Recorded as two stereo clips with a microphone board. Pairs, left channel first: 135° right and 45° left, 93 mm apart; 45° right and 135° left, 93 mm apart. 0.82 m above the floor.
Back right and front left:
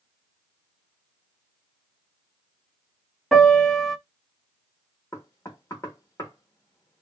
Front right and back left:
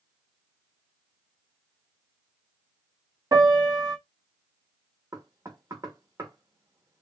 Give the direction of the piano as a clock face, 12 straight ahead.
8 o'clock.